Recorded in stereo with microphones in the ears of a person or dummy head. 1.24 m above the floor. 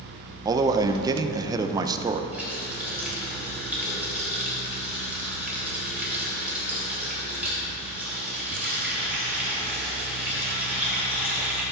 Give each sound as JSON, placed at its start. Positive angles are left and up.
{"t": 0.5, "sound": "a man speaking", "side_deg": -15, "distance_m": 0.6}
{"t": 2.3, "sound": "a running tap", "side_deg": 0, "distance_m": 3.5}